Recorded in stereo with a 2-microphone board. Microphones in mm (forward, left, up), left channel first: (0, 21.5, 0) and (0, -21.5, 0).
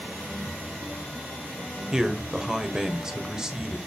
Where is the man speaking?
15° right (ahead or behind), 1.4 m.